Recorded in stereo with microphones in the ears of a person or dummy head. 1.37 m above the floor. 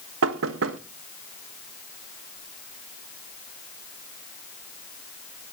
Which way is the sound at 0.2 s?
85° right.